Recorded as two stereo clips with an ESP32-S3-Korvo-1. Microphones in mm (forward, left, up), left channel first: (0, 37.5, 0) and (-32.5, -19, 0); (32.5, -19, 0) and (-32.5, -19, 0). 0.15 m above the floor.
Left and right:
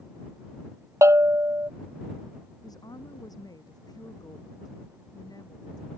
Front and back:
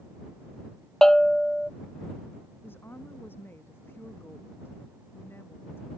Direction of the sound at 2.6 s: 55° left.